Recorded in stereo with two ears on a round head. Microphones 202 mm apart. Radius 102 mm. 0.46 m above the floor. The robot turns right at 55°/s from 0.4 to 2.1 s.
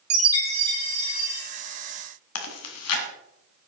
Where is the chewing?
65° left (ahead or behind), 1.9 m.